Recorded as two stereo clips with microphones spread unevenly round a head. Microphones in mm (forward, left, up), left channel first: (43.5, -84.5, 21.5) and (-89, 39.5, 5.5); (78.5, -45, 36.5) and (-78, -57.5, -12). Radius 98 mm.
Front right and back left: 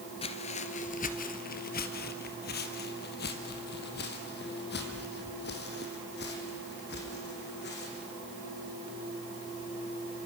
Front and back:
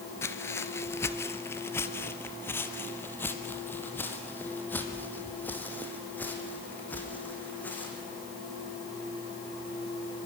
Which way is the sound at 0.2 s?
20° right.